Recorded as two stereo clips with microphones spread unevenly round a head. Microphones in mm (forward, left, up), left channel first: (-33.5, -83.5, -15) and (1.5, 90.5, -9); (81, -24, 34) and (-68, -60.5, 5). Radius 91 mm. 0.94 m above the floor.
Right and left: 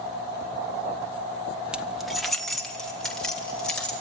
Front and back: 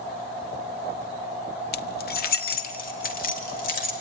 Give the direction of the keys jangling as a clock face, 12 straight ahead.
12 o'clock.